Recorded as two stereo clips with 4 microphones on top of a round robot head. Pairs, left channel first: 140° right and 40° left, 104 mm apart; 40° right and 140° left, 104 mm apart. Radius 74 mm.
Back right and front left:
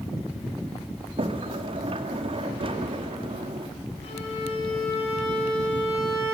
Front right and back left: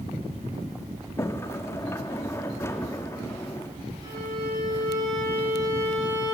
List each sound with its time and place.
1.2 s a sliding door: 20° left, 1.6 m
4.0 s a violin: 170° right, 9 m